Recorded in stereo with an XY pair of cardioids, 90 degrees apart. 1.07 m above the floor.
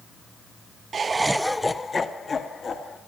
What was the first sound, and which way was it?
Laughter, 50° right.